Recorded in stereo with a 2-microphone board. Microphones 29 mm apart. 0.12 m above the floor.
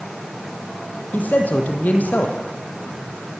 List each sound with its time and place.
1.1 s a man speaking: 70° left (ahead or behind), 5 m